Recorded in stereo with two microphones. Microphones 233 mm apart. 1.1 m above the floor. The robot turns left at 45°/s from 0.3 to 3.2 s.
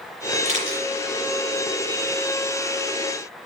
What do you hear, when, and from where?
0.5 s a camera shutter: 30° right (ahead or behind), 6.5 m; by 0.9 s 45° right (ahead or behind), 6.5 m